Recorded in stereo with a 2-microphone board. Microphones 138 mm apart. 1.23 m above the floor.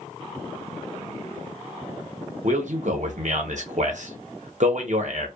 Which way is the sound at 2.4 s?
65° right (ahead or behind).